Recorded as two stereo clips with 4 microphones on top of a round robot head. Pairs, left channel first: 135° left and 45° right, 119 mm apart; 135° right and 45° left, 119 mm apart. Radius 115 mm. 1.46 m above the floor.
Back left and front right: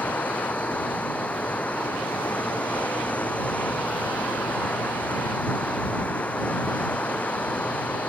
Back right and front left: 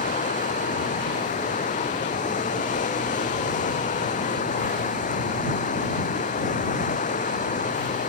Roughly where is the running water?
Behind right.